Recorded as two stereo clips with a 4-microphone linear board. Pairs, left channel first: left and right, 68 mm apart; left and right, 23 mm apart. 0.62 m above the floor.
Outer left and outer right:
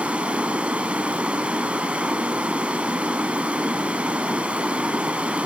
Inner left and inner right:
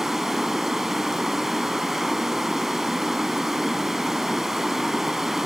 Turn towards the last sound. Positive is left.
turn(degrees=-15)  # may be behind; listen again after turning